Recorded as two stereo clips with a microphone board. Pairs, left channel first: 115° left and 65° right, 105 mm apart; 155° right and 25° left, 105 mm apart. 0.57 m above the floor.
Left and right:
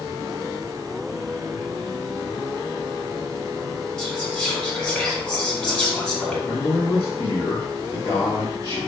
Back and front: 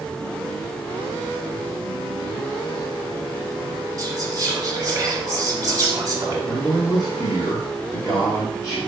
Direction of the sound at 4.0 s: 40° left.